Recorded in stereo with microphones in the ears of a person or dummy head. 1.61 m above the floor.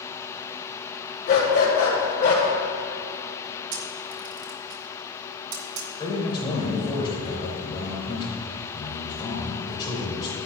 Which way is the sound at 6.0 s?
25° left (ahead or behind).